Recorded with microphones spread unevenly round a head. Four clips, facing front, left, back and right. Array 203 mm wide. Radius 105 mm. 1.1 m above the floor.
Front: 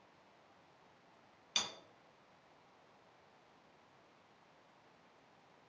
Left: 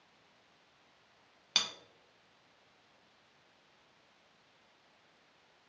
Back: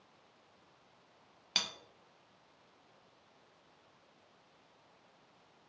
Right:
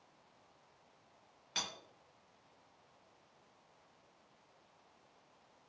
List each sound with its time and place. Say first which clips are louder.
1.6 s cutlery clinking: left 3 dB, back 2 dB; 130° left, 0.7 m